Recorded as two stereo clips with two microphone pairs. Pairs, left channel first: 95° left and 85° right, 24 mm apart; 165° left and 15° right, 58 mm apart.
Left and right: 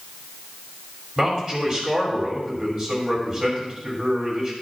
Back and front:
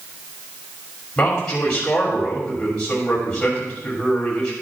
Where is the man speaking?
125° right, 2.5 m.